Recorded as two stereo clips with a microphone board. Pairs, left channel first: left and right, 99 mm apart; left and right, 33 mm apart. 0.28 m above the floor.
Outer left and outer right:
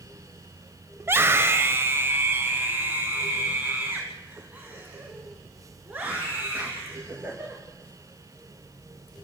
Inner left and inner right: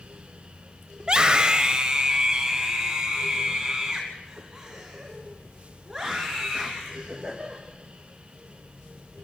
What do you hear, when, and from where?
1.0 s a scream: 25° right (ahead or behind), 0.9 m; by 7.6 s 15° right (ahead or behind), 4.5 m